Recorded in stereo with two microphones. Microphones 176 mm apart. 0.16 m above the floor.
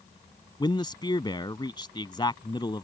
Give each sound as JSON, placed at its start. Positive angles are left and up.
{"t": 0.6, "sound": "a man speaking", "side_deg": 25}